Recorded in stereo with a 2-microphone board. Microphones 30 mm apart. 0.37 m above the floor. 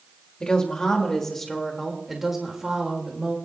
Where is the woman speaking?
30° left (ahead or behind), 1.7 m; by 3.4 s 35° right (ahead or behind), 1.7 m.